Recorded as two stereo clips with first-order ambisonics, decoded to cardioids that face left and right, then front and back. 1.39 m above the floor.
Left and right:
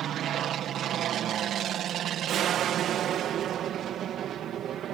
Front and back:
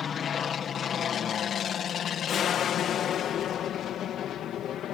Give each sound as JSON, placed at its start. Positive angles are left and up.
{"t": 0.0, "sound": "an aircraft", "azimuth_deg": -50}